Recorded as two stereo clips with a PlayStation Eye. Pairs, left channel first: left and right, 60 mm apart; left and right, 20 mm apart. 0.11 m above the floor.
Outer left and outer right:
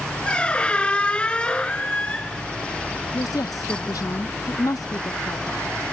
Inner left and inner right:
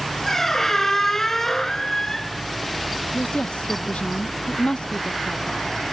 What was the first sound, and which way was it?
A squeak, 20° left (ahead or behind).